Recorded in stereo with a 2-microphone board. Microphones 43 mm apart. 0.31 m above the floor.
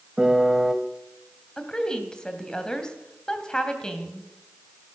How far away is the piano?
About 1.3 m.